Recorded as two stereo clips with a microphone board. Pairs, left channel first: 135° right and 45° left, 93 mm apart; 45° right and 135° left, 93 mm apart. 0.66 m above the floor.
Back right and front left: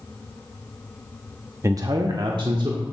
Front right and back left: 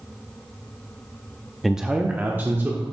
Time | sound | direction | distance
1.6 | a man speaking | 45° left | 0.5 m